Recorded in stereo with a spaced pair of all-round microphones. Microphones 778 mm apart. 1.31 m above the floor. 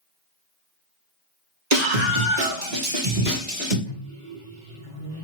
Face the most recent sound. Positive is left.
turn(degrees=-65)  # may be behind; listen again after turning